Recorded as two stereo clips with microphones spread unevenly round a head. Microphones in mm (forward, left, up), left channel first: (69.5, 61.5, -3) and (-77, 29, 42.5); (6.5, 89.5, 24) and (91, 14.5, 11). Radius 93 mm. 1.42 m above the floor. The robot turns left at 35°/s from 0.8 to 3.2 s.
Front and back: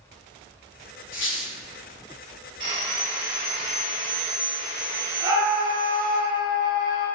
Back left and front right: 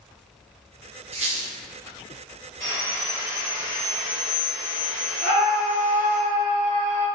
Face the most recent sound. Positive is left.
turn(degrees=125)